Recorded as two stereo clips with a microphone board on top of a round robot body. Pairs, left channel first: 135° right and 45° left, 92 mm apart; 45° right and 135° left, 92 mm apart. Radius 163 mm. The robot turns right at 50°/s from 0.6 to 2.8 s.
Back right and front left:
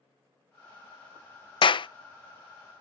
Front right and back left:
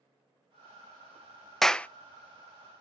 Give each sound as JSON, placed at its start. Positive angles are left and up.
{"t": 1.6, "sound": "a clap", "azimuth_deg": -130, "distance_m": 0.6}